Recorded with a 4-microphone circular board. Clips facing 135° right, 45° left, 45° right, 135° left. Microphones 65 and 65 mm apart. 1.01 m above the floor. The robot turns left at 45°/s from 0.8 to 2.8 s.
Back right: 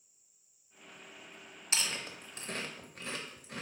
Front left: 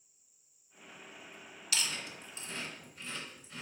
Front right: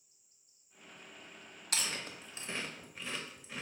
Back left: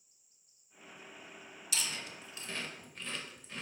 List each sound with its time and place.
1.7 s chewing: 80° right, 0.5 m; by 3.6 s 125° right, 0.5 m